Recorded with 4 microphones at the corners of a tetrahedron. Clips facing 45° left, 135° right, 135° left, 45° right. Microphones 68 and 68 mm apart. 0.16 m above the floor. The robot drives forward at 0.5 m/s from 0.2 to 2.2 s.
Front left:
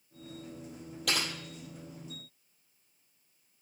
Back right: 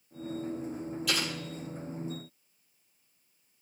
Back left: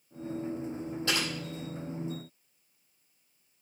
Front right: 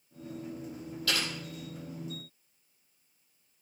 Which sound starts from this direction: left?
Typing on a keyboard, at 1.1 s.